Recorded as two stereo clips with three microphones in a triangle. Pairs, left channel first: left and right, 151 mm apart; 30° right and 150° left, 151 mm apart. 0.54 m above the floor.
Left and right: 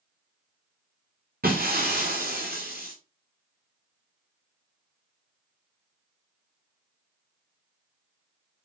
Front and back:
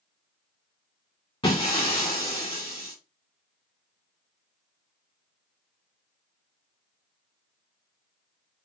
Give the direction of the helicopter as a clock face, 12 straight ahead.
I don't hear a helicopter.